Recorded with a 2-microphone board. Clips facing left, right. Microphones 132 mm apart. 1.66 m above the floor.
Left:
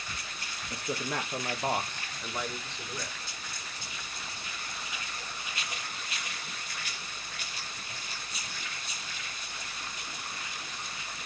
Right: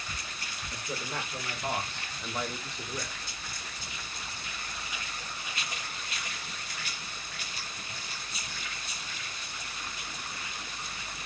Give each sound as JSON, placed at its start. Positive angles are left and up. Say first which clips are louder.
{"t": 0.7, "sound": "a man speaking", "louder": "left 4 dB", "side_deg": 60, "distance_m": 0.7}